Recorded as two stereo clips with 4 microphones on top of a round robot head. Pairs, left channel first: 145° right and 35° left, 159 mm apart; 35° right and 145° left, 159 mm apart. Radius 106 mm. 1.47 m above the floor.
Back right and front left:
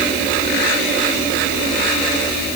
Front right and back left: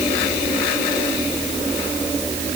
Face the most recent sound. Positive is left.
No sound to turn to.